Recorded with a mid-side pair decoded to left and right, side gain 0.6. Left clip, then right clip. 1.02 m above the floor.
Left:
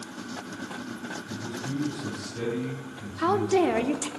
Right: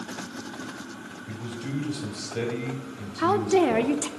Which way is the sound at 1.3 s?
65° right.